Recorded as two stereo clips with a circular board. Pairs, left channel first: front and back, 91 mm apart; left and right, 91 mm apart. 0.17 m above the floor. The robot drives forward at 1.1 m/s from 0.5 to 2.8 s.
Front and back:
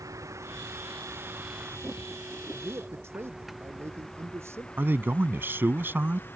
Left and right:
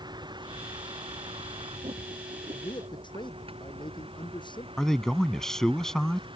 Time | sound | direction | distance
0.0 | a vehicle | 125° right | ?
2.5 | a man speaking | 115° left | ?
4.8 | a man speaking | 165° left | ?